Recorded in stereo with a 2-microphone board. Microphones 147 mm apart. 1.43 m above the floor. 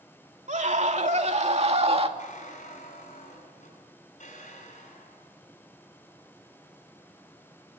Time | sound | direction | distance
0.5 | a scream | 60° right (ahead or behind) | 3 m
2.2 | a squeak | 60° left (ahead or behind) | 8 m